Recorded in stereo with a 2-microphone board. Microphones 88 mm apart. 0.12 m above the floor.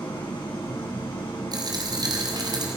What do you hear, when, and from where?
0.0 s an engine running: 70° left (ahead or behind), 7.5 m
1.5 s a dropped coin: 50° right (ahead or behind), 3.5 m